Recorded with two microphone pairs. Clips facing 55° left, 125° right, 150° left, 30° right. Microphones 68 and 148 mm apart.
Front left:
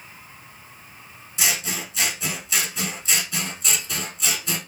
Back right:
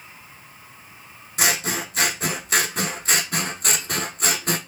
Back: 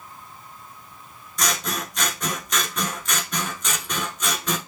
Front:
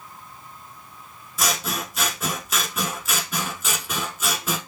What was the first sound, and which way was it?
Scissors, 115° right.